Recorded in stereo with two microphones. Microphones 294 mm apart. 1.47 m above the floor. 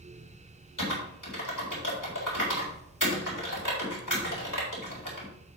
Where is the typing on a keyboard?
75° left (ahead or behind), 3.5 m.